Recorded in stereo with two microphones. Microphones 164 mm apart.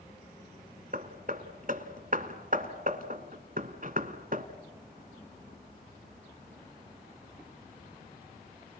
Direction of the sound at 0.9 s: 55° right (ahead or behind).